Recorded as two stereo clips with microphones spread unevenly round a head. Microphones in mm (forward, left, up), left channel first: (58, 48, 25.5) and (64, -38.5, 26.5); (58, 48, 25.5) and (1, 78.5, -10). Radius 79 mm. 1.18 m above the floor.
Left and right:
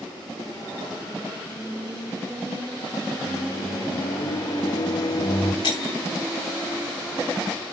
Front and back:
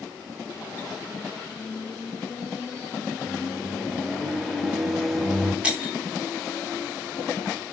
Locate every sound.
3.2 s a microwave: 60° left, 1.6 m
5.6 s breaking glass: 75° left, 4 m